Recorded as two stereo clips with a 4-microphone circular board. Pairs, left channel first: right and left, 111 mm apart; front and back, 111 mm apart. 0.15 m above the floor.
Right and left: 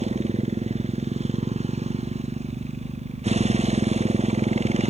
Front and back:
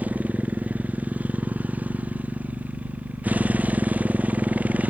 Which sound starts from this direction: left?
A motorcycle, at 0.0 s.